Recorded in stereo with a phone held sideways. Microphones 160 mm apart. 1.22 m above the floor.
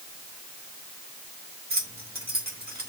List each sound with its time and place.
1.7 s keys jangling: 70° right (ahead or behind), 3 m